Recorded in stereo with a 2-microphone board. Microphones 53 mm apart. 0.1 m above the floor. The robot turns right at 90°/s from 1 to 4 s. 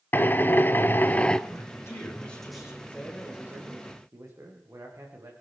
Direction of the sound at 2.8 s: 155° left.